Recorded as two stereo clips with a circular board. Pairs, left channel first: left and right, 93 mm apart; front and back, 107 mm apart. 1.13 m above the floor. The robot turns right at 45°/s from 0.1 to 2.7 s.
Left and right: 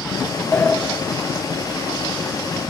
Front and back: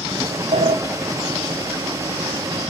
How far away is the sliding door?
About 0.7 m.